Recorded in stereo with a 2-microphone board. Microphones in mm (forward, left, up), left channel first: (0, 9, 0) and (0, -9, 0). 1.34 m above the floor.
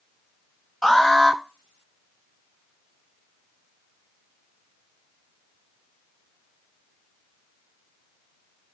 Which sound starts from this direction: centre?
An alarm, at 0.8 s.